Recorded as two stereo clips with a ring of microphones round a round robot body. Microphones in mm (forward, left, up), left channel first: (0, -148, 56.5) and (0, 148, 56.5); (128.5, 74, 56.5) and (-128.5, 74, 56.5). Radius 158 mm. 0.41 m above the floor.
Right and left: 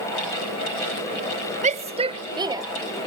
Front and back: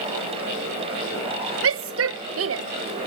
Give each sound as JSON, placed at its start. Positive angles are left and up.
{"t": 1.6, "sound": "a shout", "azimuth_deg": 155}